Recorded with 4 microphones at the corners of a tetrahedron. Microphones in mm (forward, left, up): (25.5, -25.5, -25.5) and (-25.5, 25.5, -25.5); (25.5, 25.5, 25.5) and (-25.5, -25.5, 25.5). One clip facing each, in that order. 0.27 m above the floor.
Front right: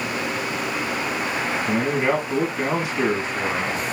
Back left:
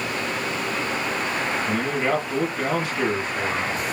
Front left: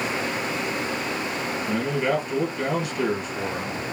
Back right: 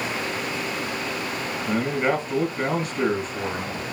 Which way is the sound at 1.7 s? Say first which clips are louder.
Front right 4 dB, back right 2 dB; 115° right.